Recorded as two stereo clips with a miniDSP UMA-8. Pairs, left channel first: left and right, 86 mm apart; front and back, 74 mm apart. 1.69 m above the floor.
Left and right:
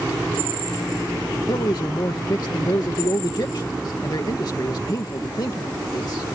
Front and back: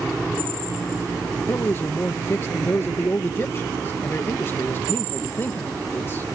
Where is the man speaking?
55° left.